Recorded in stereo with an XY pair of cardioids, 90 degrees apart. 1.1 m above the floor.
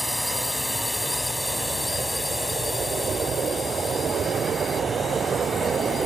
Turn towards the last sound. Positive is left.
turn(degrees=40)